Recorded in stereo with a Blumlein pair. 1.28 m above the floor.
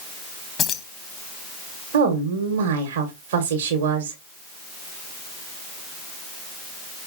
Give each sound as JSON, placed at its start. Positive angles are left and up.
{"t": 0.6, "sound": "keys jangling", "azimuth_deg": 30, "distance_m": 0.9}
{"t": 1.9, "sound": "a woman speaking", "azimuth_deg": -55, "distance_m": 1.2}